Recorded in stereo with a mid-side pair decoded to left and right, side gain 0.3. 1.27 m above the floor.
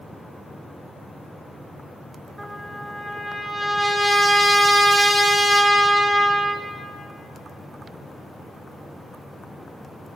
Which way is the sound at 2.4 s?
25° right.